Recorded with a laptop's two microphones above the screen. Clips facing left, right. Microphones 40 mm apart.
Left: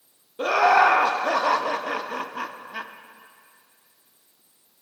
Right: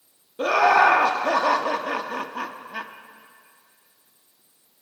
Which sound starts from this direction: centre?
Laughter, at 0.4 s.